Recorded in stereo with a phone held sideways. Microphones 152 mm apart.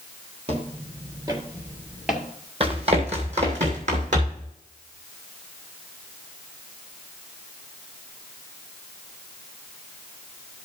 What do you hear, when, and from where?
0.5 s footsteps: 40° right (ahead or behind), 1.7 m; by 2.3 s centre (ahead or behind), 1.6 m
2.6 s running footsteps: 40° right (ahead or behind), 2 m; by 4.5 s 55° right (ahead or behind), 3 m